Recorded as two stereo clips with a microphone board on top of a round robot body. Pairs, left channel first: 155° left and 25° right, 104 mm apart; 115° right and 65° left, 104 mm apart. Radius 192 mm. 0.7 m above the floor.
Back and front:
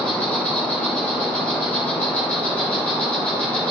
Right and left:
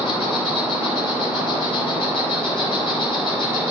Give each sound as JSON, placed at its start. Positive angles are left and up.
{"t": 0.0, "sound": "an insect", "azimuth_deg": -125, "distance_m": 3.5}